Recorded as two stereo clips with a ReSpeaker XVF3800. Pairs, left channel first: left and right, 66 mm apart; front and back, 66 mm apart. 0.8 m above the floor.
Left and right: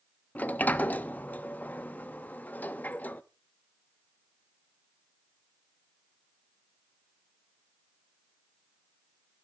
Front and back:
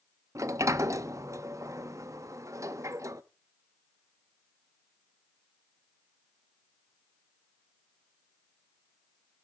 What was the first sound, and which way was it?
A sliding door, 150° left.